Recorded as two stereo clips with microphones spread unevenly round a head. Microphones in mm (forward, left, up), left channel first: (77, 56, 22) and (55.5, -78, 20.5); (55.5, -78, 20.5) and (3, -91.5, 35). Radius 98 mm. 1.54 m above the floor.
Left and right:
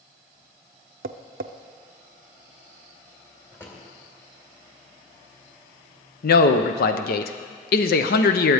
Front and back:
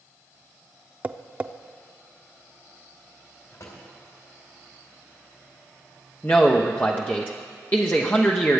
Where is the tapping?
105° right, 0.5 m.